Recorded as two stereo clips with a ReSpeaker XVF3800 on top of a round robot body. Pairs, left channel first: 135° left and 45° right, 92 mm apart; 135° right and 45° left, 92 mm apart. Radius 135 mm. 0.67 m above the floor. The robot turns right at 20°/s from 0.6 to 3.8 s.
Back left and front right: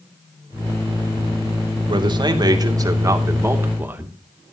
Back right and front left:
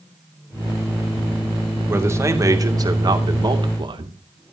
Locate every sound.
1.9 s a man speaking: 15° right, 2.5 m; by 4.5 s 20° left, 2.5 m